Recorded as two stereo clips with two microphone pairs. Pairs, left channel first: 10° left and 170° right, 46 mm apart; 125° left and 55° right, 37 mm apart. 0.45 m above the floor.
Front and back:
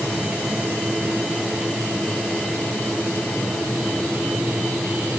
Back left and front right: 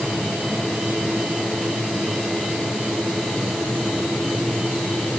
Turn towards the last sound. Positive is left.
No sound to turn to.